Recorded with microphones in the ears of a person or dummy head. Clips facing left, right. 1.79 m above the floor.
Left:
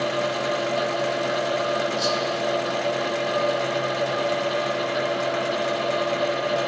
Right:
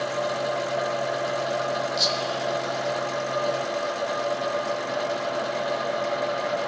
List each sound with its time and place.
2.0 s whispering: 55° right (ahead or behind), 3 m